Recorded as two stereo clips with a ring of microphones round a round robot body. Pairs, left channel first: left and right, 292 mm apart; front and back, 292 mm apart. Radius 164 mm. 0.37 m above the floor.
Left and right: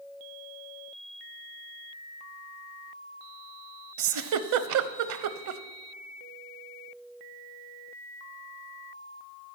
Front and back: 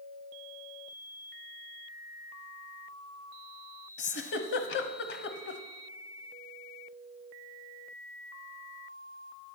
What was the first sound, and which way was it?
A giggle, 60° right.